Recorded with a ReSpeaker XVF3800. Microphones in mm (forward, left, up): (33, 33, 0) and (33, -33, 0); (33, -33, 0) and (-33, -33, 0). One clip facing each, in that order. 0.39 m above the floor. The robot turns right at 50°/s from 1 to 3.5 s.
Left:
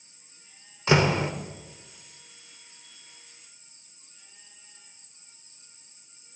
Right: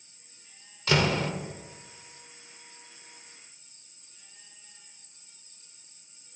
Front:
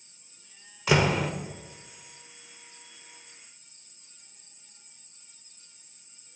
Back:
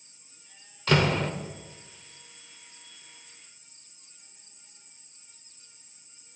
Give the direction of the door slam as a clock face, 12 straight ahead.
10 o'clock.